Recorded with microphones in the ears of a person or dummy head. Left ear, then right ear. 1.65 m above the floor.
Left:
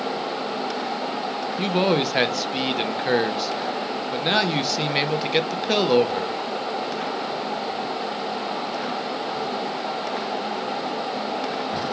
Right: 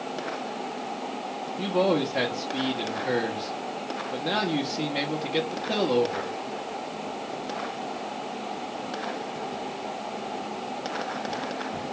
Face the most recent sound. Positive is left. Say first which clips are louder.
# left 2 dB
turn(degrees=60)  # may be behind; listen again after turning